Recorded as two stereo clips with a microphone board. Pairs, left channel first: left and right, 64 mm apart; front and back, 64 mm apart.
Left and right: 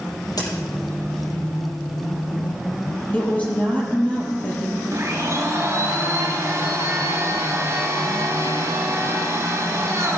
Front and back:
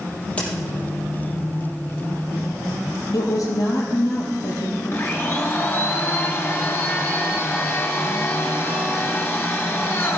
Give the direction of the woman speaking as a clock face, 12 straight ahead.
11 o'clock.